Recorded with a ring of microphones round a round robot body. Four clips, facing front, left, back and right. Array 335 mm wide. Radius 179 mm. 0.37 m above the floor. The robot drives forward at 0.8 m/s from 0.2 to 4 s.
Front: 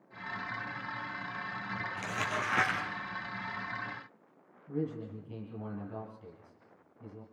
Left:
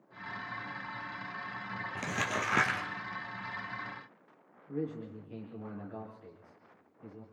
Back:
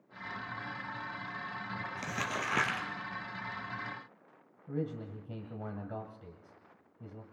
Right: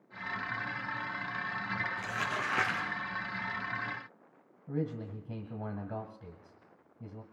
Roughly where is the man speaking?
Behind right.